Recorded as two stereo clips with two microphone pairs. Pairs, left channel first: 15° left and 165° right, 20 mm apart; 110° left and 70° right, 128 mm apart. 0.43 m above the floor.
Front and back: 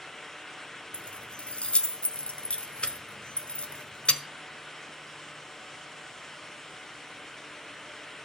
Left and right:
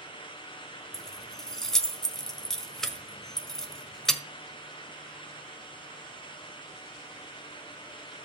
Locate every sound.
0.9 s keys jangling: 25° left, 1.4 m